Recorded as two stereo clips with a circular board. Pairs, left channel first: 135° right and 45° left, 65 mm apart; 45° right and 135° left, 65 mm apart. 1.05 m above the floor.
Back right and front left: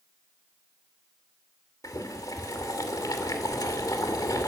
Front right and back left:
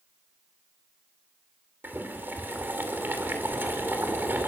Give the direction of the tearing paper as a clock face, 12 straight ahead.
No tearing paper in this recording.